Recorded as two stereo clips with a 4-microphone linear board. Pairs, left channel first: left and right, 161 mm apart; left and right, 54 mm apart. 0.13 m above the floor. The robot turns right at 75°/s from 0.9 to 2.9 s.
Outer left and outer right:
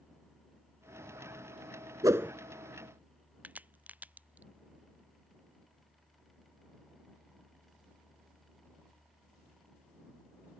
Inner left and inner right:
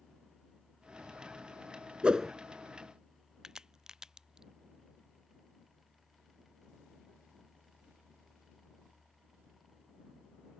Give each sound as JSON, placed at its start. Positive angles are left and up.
{"t": 2.0, "sound": "a whoosh", "side_deg": -20}
{"t": 3.4, "sound": "a crack", "side_deg": -10}